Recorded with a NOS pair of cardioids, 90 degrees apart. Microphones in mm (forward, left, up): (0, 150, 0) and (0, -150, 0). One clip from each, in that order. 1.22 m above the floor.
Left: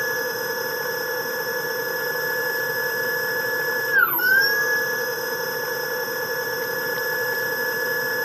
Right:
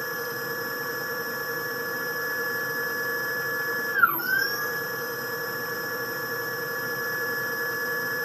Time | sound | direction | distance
0.0 | a machine running | 60° left | 1.6 m